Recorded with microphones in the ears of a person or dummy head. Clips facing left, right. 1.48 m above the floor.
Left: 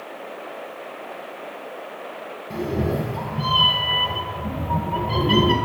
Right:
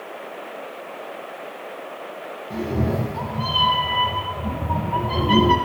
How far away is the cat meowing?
About 0.7 m.